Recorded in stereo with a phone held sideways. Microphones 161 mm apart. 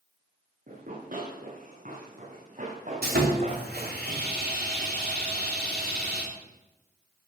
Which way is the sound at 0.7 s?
60° right (ahead or behind).